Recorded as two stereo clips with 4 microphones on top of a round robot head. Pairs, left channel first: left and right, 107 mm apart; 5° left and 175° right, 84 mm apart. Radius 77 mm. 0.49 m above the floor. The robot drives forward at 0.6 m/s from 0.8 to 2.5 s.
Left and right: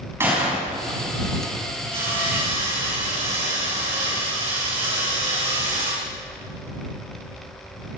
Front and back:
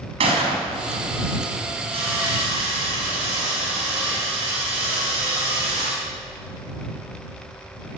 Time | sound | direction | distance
0.2 | a gunshot | 165° right | 4 m
1.9 | sawing | 140° right | 7.5 m